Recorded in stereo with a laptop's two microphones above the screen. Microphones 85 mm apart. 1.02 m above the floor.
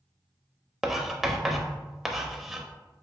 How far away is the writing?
About 0.5 m.